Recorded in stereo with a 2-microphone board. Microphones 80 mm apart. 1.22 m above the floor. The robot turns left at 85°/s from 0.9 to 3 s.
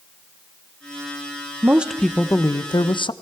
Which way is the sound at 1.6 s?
150° right.